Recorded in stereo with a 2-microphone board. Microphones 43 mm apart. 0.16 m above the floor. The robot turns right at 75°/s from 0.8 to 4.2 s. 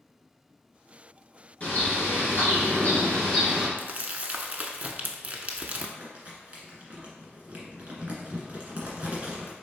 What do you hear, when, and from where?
1.6 s a bird: 40° left, 2.0 m; by 3.7 s 165° right, 2.0 m
3.8 s crumpling: 50° right (ahead or behind), 0.6 m; by 5.9 s 40° right (ahead or behind), 0.6 m
6.0 s crumpling: 35° right (ahead or behind), 1.6 m